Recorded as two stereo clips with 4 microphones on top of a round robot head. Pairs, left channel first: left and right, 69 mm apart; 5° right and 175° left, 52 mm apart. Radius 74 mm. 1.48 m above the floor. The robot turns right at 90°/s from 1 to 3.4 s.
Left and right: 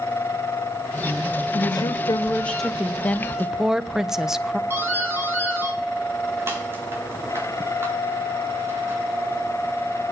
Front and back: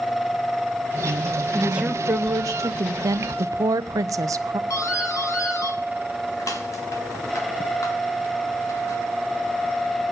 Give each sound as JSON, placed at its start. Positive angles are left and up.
{"t": 1.5, "sound": "a woman speaking", "azimuth_deg": 80, "distance_m": 3.0}
{"t": 3.0, "sound": "a woman speaking", "azimuth_deg": 155, "distance_m": 0.8}
{"t": 4.7, "sound": "a doorbell", "azimuth_deg": -30, "distance_m": 3.5}